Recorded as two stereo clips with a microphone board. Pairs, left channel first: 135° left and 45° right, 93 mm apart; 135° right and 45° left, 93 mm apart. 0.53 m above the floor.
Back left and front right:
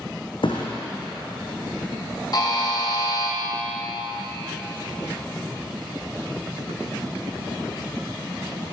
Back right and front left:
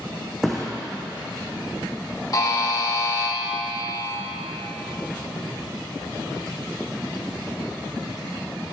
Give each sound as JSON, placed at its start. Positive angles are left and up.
{"t": 0.4, "sound": "a thud", "azimuth_deg": 135, "distance_m": 1.4}
{"t": 2.3, "sound": "a buzzer", "azimuth_deg": 175, "distance_m": 1.4}